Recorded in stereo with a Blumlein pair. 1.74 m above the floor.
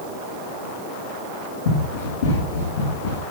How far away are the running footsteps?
About 9.5 m.